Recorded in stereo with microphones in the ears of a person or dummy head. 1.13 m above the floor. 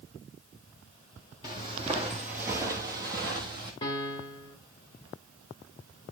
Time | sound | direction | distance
1.4 | footsteps | 15° left (ahead or behind) | 1.1 m
3.8 | a piano | 20° left (ahead or behind) | 0.8 m